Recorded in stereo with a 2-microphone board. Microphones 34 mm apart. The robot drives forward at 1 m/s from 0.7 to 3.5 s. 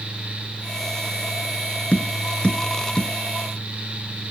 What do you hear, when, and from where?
1.9 s tapping: 50° left (ahead or behind); by 3.1 s 35° left (ahead or behind)